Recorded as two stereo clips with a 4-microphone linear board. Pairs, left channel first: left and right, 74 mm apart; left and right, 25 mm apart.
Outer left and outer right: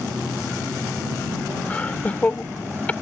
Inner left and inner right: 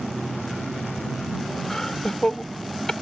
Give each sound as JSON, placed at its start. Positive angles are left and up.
{"t": 1.7, "sound": "laughter", "side_deg": 20}